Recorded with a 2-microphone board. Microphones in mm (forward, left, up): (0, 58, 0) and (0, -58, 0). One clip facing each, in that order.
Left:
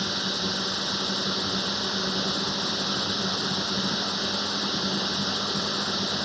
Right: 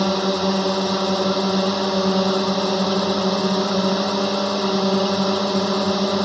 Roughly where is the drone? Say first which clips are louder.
Right 12 dB; right.